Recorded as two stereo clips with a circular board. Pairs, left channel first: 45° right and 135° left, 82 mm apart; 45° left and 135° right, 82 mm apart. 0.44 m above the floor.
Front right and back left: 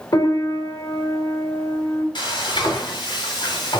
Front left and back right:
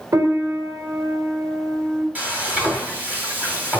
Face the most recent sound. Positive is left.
turn(degrees=-65)